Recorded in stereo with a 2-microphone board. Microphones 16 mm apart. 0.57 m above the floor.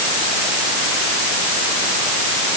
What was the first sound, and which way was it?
Only background noise.